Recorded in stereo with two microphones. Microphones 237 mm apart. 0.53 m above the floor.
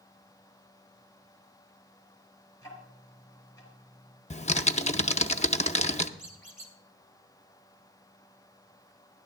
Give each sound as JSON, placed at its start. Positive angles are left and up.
{"t": 2.6, "sound": "ticking", "side_deg": 15, "distance_m": 4.5}
{"t": 4.3, "sound": "typing on a keyboard", "side_deg": 30, "distance_m": 0.5}
{"t": 6.2, "sound": "a squeak", "side_deg": -35, "distance_m": 2.0}